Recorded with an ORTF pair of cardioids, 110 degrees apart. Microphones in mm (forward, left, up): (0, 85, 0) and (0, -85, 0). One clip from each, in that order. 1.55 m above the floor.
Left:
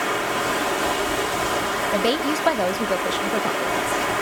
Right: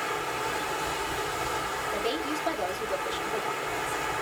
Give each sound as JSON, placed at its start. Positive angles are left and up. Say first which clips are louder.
{"t": 0.0, "sound": "running water", "louder": "left 7 dB", "azimuth_deg": 60, "distance_m": 1.1}
{"t": 1.9, "sound": "a woman speaking", "louder": "left 8 dB", "azimuth_deg": 60, "distance_m": 0.9}